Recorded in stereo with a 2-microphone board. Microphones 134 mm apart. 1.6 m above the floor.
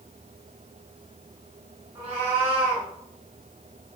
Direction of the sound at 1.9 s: 45° right (ahead or behind).